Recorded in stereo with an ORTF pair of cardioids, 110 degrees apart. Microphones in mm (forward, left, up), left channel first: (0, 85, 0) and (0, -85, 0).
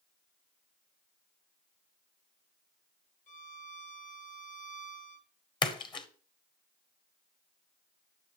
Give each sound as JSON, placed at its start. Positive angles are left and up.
{"t": 3.3, "sound": "a violin", "azimuth_deg": 50, "distance_m": 1.3}
{"t": 5.6, "sound": "a splash", "azimuth_deg": 30, "distance_m": 1.0}